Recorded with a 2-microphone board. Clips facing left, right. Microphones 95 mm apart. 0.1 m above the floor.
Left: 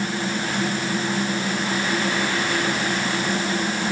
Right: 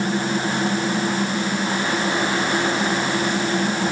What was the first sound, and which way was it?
Only background noise.